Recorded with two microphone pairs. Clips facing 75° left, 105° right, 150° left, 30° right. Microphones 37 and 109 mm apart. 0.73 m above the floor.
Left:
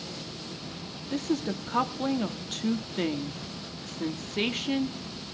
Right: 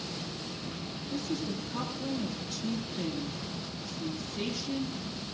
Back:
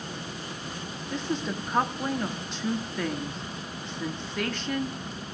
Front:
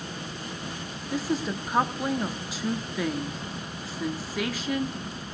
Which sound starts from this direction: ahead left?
A woman speaking, at 1.1 s.